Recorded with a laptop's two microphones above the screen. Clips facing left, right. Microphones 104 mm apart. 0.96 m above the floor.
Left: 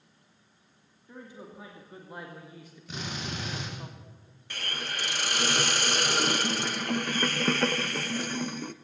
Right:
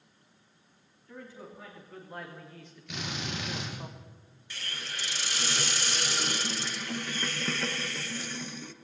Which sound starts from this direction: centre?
A man speaking, at 1.1 s.